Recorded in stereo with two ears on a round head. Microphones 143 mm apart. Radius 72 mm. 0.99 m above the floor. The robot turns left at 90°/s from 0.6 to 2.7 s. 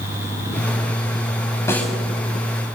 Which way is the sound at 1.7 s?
20° left (ahead or behind).